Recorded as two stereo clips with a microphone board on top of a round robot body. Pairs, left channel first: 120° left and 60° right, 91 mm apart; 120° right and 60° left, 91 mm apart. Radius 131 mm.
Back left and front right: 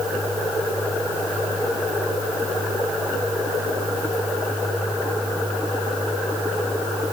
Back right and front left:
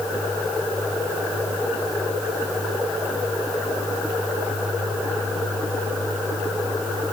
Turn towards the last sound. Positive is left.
No sound to turn to.